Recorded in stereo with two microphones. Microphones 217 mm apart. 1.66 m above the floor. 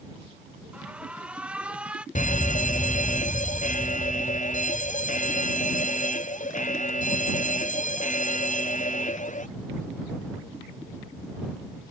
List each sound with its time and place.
0.7 s an alarm: 5° right (ahead or behind)
2.1 s a fire alarm: 35° left (ahead or behind)